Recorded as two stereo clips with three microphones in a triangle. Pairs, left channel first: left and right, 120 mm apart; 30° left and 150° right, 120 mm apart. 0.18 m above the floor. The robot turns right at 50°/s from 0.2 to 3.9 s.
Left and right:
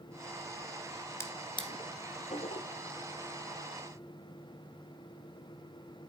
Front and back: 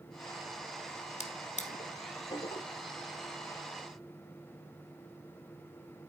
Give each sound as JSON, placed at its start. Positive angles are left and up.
{"t": 1.2, "sound": "a drawer", "azimuth_deg": 25, "distance_m": 1.4}